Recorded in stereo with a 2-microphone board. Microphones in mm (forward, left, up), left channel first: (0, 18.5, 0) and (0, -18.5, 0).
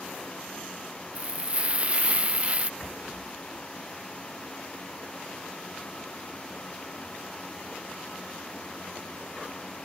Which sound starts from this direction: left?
A rattle, at 2.8 s.